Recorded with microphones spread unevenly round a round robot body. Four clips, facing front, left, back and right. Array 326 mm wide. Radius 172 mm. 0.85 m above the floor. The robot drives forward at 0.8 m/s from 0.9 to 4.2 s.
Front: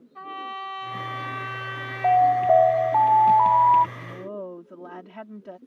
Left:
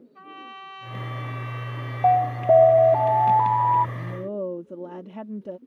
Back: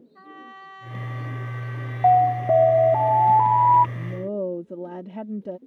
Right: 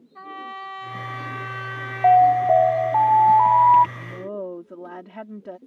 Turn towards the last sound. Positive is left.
turn(degrees=165)